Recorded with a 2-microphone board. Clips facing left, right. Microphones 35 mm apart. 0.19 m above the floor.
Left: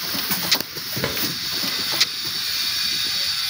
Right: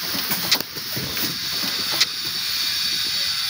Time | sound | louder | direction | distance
1.0 | a drawer | left 4 dB | 55° left (ahead or behind) | 1.4 m